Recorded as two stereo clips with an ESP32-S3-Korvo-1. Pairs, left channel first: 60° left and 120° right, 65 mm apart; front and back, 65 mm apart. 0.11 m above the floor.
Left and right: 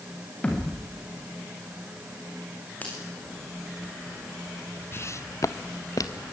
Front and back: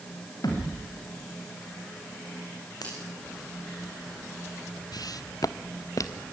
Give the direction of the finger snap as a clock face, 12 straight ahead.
12 o'clock.